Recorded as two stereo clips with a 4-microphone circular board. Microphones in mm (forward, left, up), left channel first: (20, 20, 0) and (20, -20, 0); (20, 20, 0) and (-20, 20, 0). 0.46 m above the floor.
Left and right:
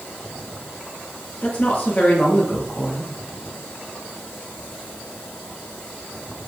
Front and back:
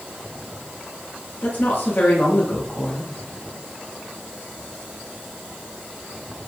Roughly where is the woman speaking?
Ahead left.